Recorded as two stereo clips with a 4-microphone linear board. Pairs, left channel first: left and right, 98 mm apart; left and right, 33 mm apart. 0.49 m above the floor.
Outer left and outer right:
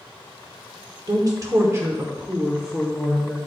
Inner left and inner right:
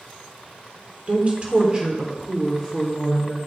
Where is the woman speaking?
45° right (ahead or behind), 1.2 m; by 3.5 s 5° left (ahead or behind), 1.7 m.